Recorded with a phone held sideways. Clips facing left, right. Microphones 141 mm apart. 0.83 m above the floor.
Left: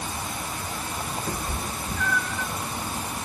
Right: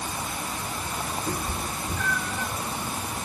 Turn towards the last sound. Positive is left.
turn(degrees=-5)  # may be behind; listen again after turning